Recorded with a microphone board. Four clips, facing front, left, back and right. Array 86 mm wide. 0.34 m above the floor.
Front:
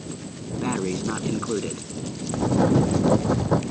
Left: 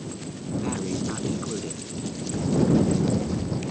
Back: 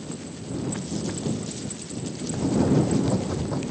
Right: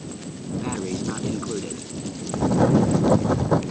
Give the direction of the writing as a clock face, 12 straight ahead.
2 o'clock.